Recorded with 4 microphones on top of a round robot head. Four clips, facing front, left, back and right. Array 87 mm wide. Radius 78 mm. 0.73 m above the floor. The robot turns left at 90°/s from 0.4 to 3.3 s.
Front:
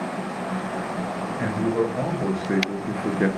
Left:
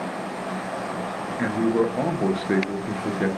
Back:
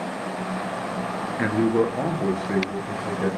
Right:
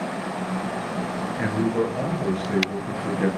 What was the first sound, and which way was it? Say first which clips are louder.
A man speaking: left 2 dB, back 3 dB; 175° left.